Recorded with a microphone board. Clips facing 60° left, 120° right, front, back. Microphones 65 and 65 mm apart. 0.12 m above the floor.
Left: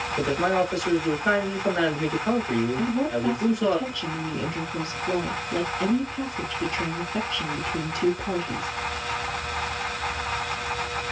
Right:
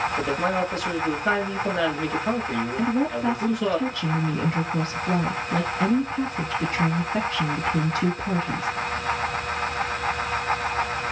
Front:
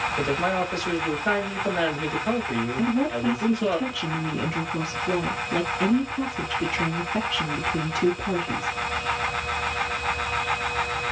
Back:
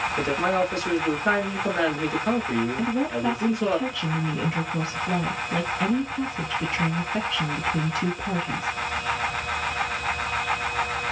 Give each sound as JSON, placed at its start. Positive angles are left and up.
{"t": 0.2, "sound": "a man speaking", "azimuth_deg": 130, "distance_m": 1.7}
{"t": 2.8, "sound": "a woman speaking", "azimuth_deg": -95, "distance_m": 1.3}